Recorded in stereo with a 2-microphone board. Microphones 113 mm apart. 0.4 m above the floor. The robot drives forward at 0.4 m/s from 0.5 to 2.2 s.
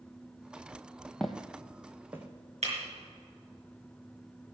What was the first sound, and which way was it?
Footsteps, 5° left (ahead or behind).